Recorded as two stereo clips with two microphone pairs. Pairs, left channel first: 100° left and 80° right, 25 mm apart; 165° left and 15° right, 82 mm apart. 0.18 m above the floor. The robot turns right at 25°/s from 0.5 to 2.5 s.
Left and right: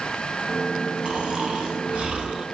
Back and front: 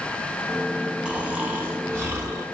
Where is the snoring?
95° right, 0.7 m; by 2.5 s 60° right, 0.7 m.